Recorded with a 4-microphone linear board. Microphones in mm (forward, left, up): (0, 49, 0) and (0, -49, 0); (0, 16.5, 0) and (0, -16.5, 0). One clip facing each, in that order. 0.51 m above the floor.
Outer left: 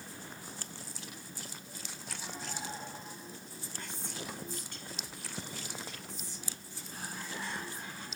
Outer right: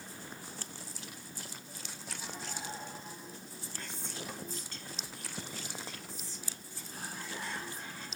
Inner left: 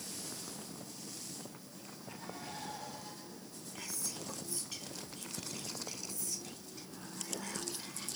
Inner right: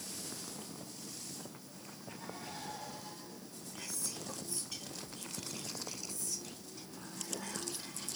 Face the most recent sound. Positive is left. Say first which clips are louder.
# outer left 1 dB, even
turn(degrees=20)  # may be behind; listen again after turning